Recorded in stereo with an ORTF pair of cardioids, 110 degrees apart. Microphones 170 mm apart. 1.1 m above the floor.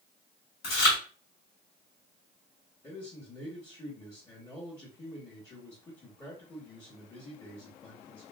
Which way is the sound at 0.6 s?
70° left.